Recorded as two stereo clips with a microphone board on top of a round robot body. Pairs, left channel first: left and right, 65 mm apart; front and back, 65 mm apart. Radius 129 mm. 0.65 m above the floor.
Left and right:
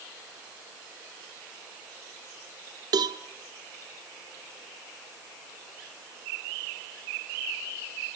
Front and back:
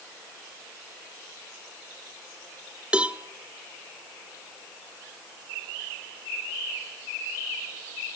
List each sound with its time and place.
2.9 s a cowbell: 105° right, 0.8 m